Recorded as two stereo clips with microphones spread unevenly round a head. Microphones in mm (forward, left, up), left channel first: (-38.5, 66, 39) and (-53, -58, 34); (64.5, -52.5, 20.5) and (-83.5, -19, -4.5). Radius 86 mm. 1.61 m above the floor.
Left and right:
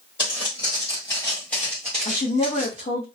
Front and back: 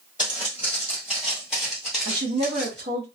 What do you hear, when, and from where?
0.2 s footsteps: 75° left, 1.9 m; by 2.8 s 40° right, 1.6 m
2.0 s a woman speaking: 130° left, 1.1 m